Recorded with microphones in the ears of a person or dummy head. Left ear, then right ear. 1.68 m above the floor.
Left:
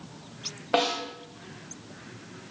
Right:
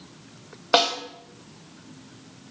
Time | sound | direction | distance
0.7 | a snare drum | 40° right (ahead or behind) | 3.5 m